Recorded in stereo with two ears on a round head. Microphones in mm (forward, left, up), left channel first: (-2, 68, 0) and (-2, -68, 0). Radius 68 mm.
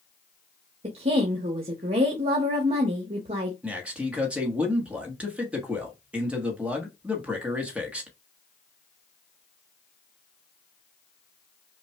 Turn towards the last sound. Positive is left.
turn(degrees=-10)  # may be behind; listen again after turning